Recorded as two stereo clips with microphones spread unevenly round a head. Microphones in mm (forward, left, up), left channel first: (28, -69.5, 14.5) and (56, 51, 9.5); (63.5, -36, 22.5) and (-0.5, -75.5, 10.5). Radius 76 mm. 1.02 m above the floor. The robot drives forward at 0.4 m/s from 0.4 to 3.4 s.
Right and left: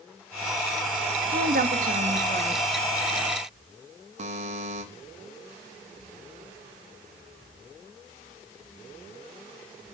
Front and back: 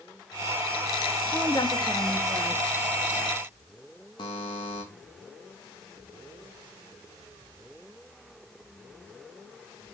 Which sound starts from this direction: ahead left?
A buzzer, at 4.2 s.